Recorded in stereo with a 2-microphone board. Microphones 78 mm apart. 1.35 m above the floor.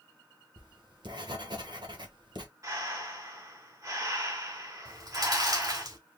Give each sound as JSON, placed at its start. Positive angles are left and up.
{"t": 0.6, "sound": "writing", "side_deg": -75, "distance_m": 1.6}
{"t": 2.6, "sound": "breathing", "side_deg": -45, "distance_m": 1.5}
{"t": 4.8, "sound": "chewing", "side_deg": -55, "distance_m": 3.0}